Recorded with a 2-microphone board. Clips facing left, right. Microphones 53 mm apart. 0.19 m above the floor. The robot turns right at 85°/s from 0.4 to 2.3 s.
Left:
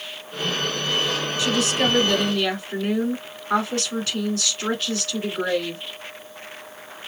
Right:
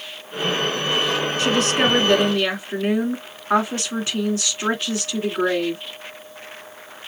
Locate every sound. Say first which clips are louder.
1.4 s a woman speaking: right 2 dB; 105° right, 2 m; by 5.8 s 30° right, 2 m